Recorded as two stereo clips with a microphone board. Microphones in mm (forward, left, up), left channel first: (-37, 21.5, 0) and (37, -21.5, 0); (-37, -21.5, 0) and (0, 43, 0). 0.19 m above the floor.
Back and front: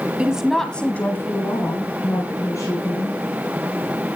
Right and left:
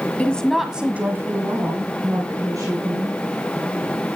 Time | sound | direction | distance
0.2 | a woman speaking | 85° right | 1.2 m